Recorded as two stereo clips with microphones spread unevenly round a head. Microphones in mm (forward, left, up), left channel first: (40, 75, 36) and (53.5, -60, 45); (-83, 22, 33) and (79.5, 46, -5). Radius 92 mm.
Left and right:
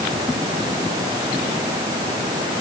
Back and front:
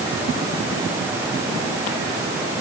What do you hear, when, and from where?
Only background noise.